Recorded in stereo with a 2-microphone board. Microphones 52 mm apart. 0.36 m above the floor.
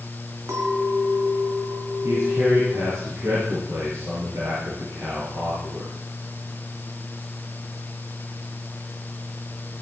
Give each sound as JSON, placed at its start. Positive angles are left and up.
{"t": 0.5, "sound": "a clink", "side_deg": -65, "distance_m": 2.5}
{"t": 2.0, "sound": "a man speaking", "side_deg": -65, "distance_m": 7.0}